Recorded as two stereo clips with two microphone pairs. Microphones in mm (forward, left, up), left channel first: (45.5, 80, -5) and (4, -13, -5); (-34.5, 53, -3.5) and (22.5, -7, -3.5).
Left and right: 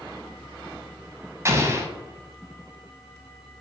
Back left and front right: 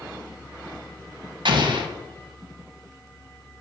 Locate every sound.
1.4 s an explosion: 50° right, 0.7 m